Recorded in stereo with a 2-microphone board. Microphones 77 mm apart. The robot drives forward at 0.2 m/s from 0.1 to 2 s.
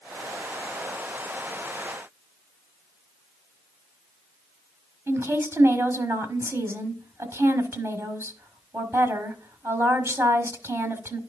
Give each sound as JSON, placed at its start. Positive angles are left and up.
{"t": 5.1, "sound": "a woman speaking", "side_deg": -30, "distance_m": 1.3}